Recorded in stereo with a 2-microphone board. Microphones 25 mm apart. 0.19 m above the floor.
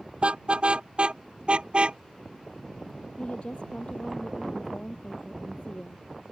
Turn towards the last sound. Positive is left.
turn(degrees=45)  # may be behind; listen again after turning